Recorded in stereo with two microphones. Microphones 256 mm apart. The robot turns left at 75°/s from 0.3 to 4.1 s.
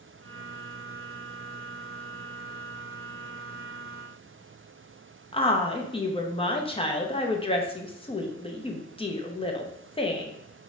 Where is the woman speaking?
20° left (ahead or behind), 0.6 m.